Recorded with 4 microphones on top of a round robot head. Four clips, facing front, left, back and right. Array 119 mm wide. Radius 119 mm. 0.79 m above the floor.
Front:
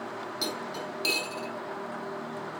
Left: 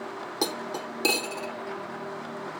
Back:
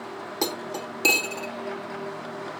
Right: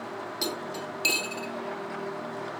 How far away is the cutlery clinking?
About 1.3 m.